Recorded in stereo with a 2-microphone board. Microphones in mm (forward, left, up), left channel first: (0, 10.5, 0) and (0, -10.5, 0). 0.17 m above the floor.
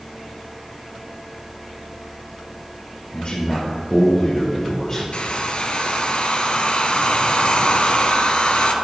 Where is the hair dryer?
60° left (ahead or behind), 1.3 m.